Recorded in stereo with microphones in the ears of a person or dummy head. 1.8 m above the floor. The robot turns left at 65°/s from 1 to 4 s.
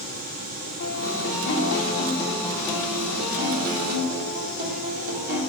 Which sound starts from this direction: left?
A guitar, at 0.8 s.